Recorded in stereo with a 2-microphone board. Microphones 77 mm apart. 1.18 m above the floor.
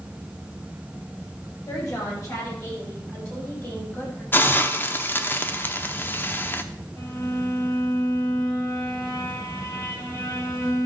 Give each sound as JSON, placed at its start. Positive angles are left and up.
{"t": 1.7, "sound": "a woman speaking", "side_deg": 45, "distance_m": 6.0}
{"t": 4.3, "sound": "a hiss", "side_deg": 25, "distance_m": 0.7}
{"t": 7.0, "sound": "a violin", "side_deg": 50, "distance_m": 3.0}